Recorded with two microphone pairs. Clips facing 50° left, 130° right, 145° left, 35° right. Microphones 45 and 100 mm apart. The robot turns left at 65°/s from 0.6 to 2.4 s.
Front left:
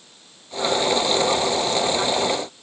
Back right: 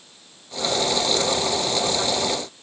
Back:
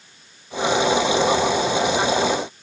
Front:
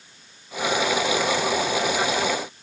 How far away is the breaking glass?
I don't hear breaking glass.